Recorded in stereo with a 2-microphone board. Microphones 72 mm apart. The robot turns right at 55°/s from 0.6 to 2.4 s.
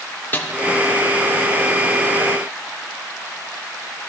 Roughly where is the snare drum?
Left.